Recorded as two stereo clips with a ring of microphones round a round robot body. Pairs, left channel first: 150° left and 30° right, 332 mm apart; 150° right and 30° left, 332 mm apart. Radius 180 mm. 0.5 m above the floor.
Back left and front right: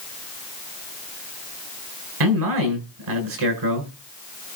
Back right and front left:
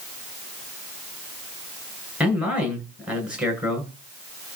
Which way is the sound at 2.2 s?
55° right.